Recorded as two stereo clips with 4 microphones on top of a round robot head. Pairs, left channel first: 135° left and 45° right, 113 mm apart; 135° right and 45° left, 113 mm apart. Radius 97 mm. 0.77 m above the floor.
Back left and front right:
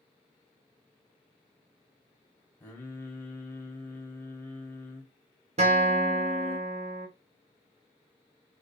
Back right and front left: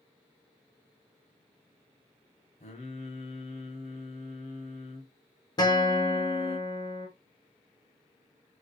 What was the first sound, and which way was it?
Singing, 155° right.